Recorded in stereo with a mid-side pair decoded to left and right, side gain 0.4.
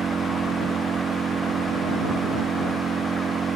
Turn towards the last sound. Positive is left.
turn(degrees=-50)